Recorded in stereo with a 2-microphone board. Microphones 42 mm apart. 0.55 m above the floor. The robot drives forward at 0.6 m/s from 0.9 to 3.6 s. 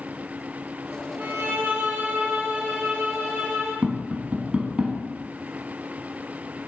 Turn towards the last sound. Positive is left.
turn(degrees=-30)  # may be behind; listen again after turning